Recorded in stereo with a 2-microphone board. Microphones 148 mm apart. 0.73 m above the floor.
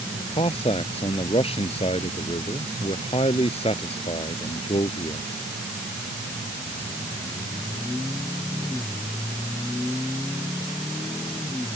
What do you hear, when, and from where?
0.2 s a man speaking: 40° left (ahead or behind)